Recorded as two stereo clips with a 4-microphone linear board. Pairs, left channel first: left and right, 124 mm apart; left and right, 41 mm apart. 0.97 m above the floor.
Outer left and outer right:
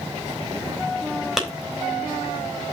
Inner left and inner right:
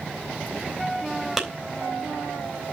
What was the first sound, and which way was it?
A clap, 5° right (ahead or behind).